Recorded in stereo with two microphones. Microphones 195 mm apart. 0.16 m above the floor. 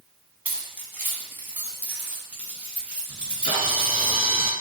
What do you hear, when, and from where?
0.5 s keys jangling: 10° right (ahead or behind), 1.1 m; by 4.1 s 5° right (ahead or behind), 2.5 m
3.1 s a camera shutter: 40° right (ahead or behind), 1.8 m